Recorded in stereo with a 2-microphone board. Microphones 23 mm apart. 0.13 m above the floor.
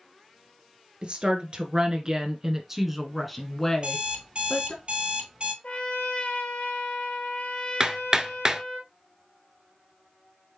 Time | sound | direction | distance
1.0 | a woman speaking | 50° right (ahead or behind) | 1.8 m
3.7 | an alarm clock | 50° right (ahead or behind) | 1.2 m
5.6 | a trumpet | 60° left (ahead or behind) | 1.2 m
7.8 | hammering | 30° right (ahead or behind) | 0.6 m